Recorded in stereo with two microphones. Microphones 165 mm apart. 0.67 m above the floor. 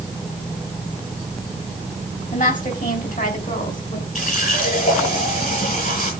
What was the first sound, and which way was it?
A woman speaking, 50° left (ahead or behind).